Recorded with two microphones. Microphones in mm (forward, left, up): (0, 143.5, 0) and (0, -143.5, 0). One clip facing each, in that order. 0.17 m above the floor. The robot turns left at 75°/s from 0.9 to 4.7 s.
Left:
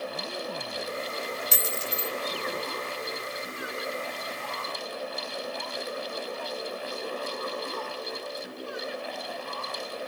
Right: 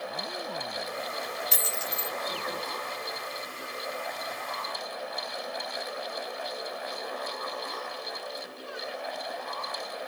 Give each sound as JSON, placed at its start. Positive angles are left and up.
{"t": 1.5, "sound": "a dropped coin", "azimuth_deg": 65, "distance_m": 0.5}